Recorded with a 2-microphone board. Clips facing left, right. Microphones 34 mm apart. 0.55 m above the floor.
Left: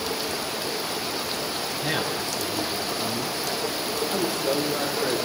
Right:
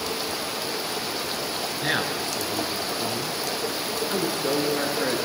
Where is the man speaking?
65° right (ahead or behind), 7.5 m; by 5.3 s 50° right (ahead or behind), 8.5 m.